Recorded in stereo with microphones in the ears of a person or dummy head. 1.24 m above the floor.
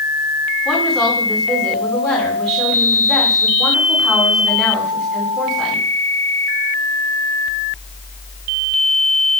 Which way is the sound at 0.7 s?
5° right (ahead or behind).